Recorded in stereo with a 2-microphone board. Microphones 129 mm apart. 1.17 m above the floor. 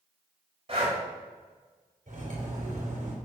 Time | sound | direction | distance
0.7 | breathing | 45° right (ahead or behind) | 2.5 m
2.1 | cutlery clinking | 65° right (ahead or behind) | 3 m